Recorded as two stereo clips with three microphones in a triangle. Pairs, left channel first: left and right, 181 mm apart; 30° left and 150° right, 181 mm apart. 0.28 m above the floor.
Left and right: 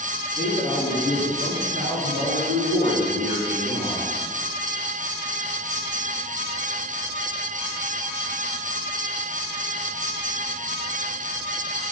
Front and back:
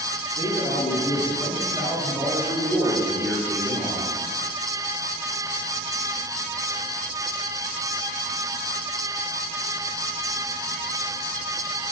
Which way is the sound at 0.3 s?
40° right.